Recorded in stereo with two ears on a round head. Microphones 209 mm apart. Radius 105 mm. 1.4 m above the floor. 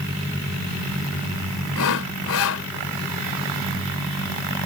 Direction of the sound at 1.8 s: 65° left (ahead or behind).